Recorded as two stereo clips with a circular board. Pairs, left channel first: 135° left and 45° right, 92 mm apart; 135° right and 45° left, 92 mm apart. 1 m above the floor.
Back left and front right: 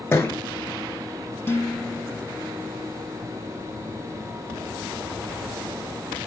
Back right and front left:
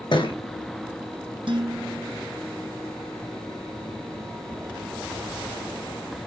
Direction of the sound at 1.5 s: 70° left.